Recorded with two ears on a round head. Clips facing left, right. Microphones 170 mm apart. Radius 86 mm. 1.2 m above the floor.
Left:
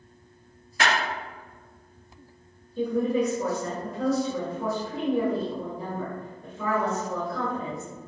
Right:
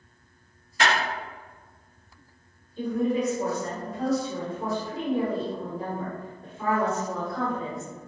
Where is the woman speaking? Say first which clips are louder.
Left 1 dB; 85° left, 1.6 m.